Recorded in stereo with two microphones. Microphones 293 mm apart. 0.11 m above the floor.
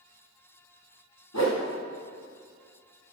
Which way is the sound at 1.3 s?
65° left (ahead or behind).